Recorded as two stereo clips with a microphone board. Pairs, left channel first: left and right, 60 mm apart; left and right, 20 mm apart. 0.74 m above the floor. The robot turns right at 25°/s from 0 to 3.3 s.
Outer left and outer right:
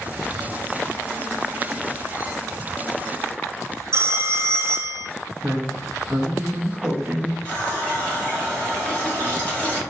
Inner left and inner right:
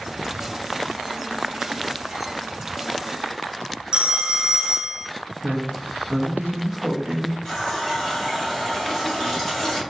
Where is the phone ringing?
45° right (ahead or behind), 0.5 m.